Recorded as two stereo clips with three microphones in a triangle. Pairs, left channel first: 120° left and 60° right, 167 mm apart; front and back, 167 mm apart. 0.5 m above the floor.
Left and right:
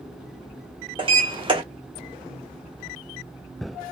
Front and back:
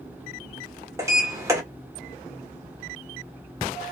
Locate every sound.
1.0 s a sliding door: 115° right, 0.9 m